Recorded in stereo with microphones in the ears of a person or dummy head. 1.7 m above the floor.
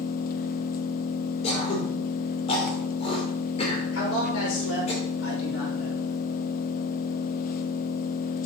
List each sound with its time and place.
0.0 s an engine running: 45° left (ahead or behind), 0.7 m
1.4 s throat clearing: 30° left (ahead or behind), 3 m
3.9 s a man speaking: 70° left (ahead or behind), 5.5 m